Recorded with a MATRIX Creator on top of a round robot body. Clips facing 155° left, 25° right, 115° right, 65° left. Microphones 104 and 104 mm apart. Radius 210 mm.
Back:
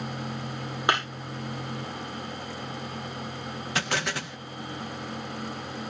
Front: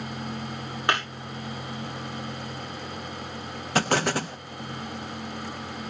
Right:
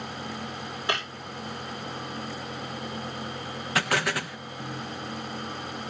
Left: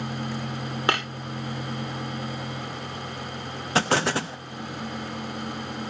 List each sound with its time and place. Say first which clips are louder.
0.9 s breaking glass: even, left 5 dB; 80° left, 9 m
3.8 s an explosion: front 7 dB, left 4 dB; 15° left, 1.1 m